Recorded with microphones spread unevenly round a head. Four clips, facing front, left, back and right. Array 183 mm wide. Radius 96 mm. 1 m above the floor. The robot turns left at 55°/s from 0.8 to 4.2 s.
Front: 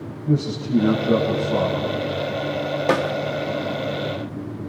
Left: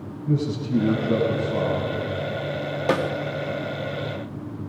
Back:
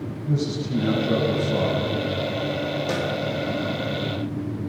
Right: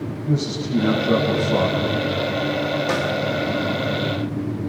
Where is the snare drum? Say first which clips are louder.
Even, front 9 dB; 15° left, 1.6 m; by 3.1 s straight ahead, 1.6 m.